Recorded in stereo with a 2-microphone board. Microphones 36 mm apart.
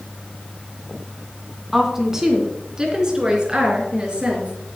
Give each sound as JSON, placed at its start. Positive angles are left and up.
{"t": 1.7, "sound": "a woman speaking", "side_deg": -10, "distance_m": 2.0}